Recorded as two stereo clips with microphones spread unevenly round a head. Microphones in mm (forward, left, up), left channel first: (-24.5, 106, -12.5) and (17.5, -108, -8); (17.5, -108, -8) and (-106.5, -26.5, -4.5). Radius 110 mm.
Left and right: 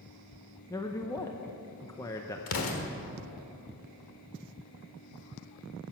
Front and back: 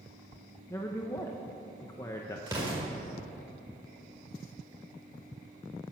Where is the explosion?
75° left, 1.5 m.